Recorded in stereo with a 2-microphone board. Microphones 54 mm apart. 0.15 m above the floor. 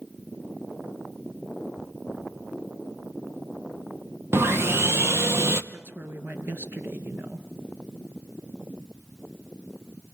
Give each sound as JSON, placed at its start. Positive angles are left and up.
{"t": 4.3, "sound": "sawing", "side_deg": -50, "distance_m": 0.9}
{"t": 5.7, "sound": "a woman speaking", "side_deg": -45, "distance_m": 3.0}